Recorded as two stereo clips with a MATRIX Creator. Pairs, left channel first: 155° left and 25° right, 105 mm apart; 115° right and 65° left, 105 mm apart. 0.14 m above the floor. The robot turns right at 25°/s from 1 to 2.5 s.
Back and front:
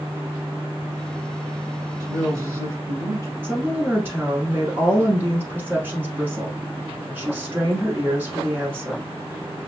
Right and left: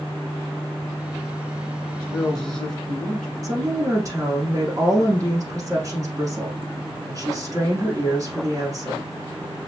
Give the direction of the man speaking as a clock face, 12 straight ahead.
2 o'clock.